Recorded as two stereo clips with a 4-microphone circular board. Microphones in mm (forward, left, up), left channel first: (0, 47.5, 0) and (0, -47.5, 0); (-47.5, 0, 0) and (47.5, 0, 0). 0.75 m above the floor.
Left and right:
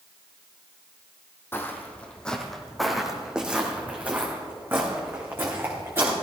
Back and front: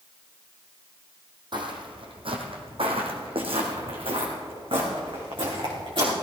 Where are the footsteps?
30° left, 1.8 m; by 6.1 s 30° right, 4 m.